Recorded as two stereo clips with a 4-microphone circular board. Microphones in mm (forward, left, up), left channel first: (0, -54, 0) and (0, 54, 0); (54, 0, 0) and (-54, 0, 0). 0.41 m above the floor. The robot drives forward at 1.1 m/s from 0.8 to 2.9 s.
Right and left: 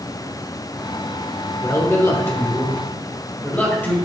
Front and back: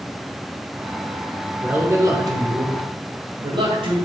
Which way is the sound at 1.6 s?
115° right.